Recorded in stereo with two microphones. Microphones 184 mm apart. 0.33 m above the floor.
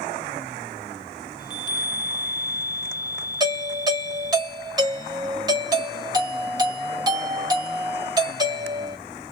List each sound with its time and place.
1.4 s a chime: 25° left (ahead or behind), 0.5 m
3.4 s a doorbell: 20° right (ahead or behind), 1.8 m